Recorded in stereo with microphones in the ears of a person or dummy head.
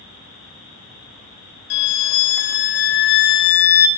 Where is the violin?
65° left (ahead or behind), 0.6 m.